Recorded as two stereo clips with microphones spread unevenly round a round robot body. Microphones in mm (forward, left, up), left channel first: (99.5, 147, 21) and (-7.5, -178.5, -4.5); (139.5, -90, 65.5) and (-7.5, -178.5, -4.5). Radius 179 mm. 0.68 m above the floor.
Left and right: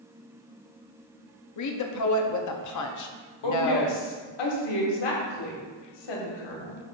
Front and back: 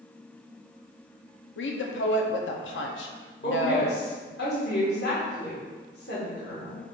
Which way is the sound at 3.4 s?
90° left.